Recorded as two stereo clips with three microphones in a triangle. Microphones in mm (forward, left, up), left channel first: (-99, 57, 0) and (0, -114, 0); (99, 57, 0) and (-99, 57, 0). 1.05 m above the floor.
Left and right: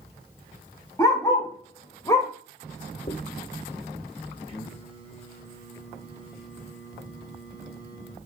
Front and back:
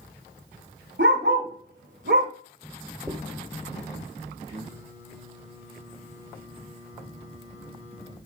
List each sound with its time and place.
1.0 s a dog barking: 165° right, 3 m
3.1 s a dropped coin: 120° left, 0.8 m
4.5 s singing: 120° right, 3.5 m